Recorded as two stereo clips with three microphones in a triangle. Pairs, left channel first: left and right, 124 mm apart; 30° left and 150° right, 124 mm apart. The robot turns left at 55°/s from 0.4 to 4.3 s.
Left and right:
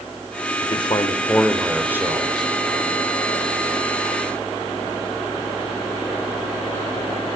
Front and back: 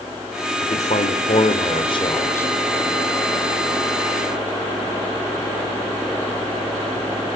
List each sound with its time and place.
0.6 s a man speaking: 55° left, 3 m; by 2.5 s 45° right, 3 m